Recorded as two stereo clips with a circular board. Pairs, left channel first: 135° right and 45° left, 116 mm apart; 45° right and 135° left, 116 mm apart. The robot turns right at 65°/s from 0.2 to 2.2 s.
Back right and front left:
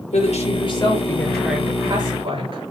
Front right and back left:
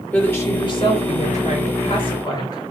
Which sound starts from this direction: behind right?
A woman speaking, at 0.1 s.